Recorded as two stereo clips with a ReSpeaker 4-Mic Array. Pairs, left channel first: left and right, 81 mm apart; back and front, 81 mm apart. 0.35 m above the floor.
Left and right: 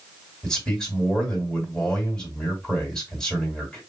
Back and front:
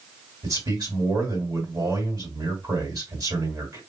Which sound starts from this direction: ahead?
A man speaking, at 0.4 s.